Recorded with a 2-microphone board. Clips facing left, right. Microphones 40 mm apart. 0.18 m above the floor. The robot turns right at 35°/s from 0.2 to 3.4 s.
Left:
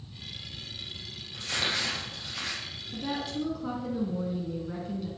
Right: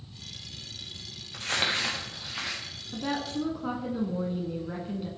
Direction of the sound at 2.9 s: 35° right (ahead or behind).